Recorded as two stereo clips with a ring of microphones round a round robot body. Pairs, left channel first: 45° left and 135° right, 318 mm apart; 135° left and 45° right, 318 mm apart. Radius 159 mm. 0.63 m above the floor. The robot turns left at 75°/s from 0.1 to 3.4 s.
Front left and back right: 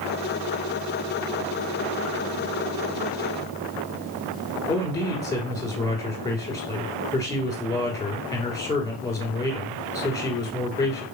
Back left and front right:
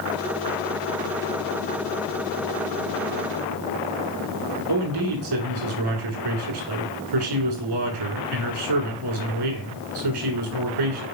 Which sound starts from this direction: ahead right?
A man speaking, at 4.7 s.